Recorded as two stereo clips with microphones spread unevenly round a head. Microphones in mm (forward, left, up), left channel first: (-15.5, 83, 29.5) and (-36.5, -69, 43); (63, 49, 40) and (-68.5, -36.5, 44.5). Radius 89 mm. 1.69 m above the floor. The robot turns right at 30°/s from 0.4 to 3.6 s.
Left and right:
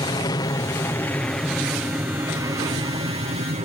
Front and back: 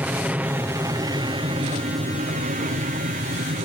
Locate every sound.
0.0 s an aircraft: 135° left; by 3.6 s 130° right